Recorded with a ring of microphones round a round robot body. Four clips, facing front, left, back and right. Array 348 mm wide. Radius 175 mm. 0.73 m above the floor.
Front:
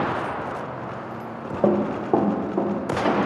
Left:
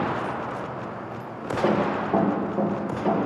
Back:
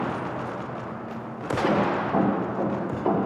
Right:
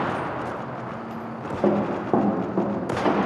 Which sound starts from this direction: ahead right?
Running footsteps, at 1.6 s.